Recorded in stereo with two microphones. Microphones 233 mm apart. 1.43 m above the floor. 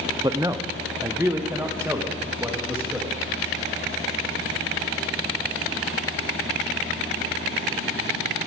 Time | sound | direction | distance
0.2 | a man speaking | 20° right (ahead or behind) | 0.5 m